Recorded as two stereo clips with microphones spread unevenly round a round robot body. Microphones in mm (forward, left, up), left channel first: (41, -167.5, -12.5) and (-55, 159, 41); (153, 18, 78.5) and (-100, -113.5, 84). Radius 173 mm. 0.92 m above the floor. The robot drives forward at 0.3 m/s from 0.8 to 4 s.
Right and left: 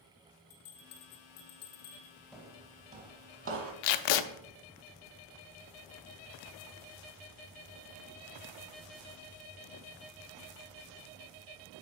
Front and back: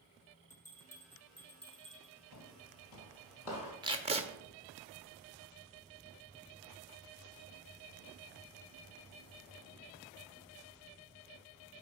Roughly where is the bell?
Ahead right.